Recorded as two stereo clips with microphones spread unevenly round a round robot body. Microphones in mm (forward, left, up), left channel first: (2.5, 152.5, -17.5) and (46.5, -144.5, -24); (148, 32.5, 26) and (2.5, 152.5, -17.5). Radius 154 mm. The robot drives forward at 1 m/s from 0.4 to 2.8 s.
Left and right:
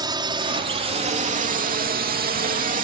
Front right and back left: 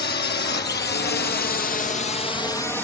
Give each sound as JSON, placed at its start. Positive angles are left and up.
{"t": 0.0, "sound": "a drone", "azimuth_deg": -10}